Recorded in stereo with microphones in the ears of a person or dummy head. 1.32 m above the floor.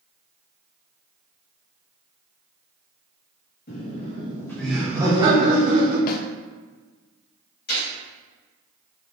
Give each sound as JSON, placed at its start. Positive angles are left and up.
{"t": 3.7, "sound": "laughter", "side_deg": 45, "distance_m": 1.5}
{"t": 6.1, "sound": "a snare drum", "side_deg": 50, "distance_m": 0.5}
{"t": 7.7, "sound": "a gunshot", "side_deg": 50, "distance_m": 2.0}